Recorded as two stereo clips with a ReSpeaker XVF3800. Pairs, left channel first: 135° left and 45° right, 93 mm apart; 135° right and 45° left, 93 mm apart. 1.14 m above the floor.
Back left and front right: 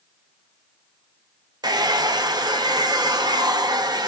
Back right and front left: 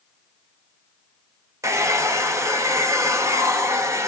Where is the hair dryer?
10° right, 0.5 m.